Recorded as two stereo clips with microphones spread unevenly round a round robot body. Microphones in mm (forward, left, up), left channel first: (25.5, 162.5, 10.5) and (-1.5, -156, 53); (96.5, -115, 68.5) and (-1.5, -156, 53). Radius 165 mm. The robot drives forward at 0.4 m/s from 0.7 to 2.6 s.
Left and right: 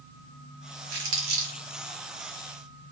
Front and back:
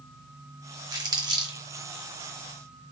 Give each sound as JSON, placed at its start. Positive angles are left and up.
{"t": 0.9, "sound": "crumpling", "azimuth_deg": -105, "distance_m": 2.0}